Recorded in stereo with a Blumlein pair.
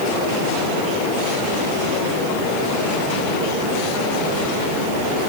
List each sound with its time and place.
Only background noise.